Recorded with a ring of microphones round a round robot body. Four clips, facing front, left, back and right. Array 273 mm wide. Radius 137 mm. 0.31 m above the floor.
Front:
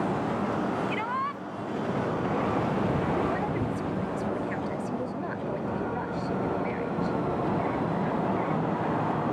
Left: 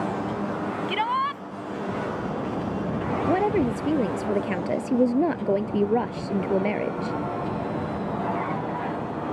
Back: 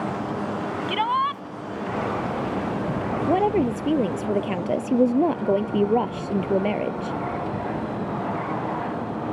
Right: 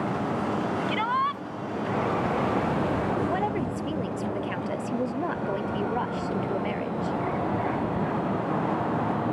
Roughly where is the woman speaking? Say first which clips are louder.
Left 5 dB, back 9 dB; behind left.